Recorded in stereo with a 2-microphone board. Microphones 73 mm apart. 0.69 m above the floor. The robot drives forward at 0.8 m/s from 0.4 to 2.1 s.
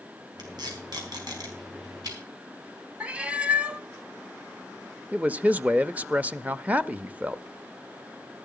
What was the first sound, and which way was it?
Tape being pulled, 75° right (ahead or behind).